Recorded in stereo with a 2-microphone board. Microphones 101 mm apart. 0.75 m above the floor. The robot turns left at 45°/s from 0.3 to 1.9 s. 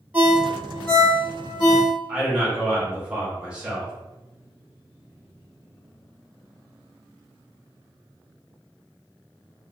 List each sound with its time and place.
0.1 s a ringtone: 15° right (ahead or behind), 0.8 m; by 1.9 s 55° left (ahead or behind), 0.8 m
2.1 s a man speaking: 10° right (ahead or behind), 1.0 m